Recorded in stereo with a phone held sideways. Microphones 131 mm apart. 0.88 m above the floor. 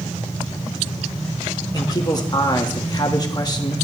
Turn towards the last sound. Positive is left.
turn(degrees=30)  # may be behind; listen again after turning